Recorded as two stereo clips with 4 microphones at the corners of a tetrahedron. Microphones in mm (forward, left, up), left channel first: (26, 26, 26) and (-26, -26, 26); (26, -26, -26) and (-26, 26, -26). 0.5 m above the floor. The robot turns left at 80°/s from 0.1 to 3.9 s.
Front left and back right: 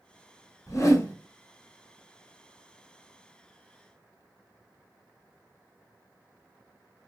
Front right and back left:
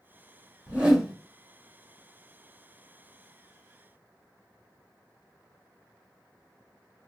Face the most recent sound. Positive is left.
turn(degrees=180)